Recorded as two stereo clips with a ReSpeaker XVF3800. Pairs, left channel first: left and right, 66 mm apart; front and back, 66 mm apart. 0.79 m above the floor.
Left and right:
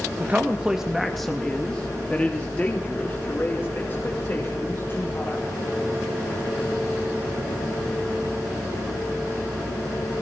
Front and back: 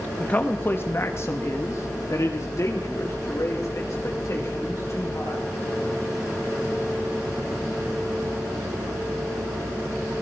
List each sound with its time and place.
0.2 s a man speaking: 50° right, 1.2 m; by 5.5 s 35° left, 4 m